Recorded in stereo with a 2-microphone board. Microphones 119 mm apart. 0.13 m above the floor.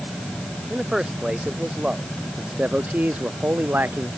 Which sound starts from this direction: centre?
A man speaking, at 0.7 s.